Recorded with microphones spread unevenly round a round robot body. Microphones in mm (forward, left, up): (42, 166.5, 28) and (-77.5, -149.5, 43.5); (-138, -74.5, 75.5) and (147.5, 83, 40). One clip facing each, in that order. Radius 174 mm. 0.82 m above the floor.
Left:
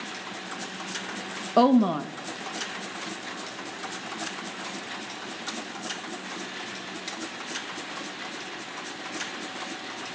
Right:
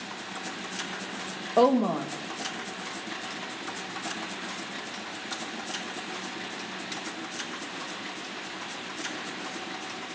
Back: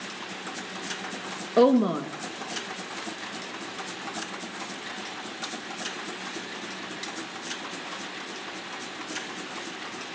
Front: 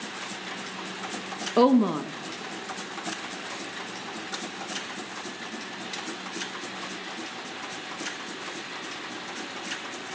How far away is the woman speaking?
About 1.0 m.